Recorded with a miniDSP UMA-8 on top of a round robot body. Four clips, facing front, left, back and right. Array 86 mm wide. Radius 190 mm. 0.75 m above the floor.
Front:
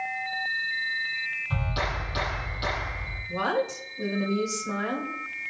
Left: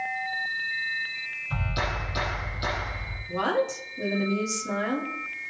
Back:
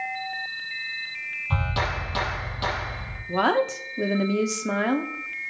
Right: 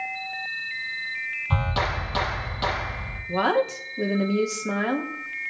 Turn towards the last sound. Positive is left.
turn(degrees=-160)